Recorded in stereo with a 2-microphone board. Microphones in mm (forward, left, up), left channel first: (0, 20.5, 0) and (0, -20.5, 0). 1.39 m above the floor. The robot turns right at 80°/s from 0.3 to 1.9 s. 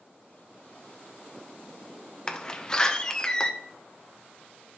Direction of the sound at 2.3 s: 20° left (ahead or behind).